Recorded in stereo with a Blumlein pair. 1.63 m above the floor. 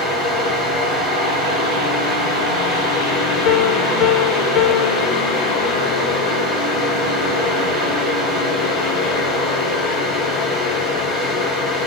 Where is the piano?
35° left, 0.7 m.